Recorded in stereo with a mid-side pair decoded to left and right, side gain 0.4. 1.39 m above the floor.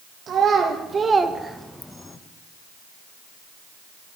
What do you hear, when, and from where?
0.3 s a child speaking: 70° right, 1.1 m; by 2.2 s 30° left, 0.9 m